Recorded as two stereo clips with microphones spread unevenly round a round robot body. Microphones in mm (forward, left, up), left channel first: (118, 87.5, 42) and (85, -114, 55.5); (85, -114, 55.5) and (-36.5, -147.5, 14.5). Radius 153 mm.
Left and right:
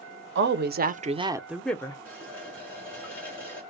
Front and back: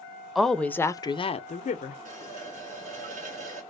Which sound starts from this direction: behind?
A running tap, at 2.0 s.